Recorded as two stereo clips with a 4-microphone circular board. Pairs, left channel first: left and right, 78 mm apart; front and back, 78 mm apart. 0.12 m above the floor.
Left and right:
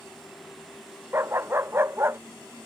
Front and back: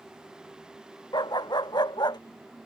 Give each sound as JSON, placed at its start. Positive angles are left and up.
{"t": 1.1, "sound": "a dog barking", "azimuth_deg": -30}